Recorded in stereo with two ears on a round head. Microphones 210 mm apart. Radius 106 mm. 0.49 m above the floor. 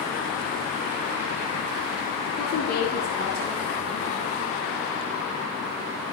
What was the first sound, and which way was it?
A woman speaking, 50° left (ahead or behind).